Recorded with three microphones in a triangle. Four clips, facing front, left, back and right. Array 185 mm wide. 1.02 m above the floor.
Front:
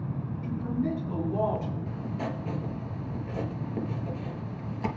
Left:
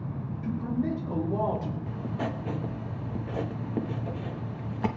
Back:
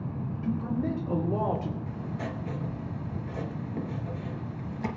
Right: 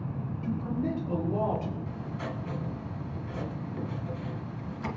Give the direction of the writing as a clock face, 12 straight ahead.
9 o'clock.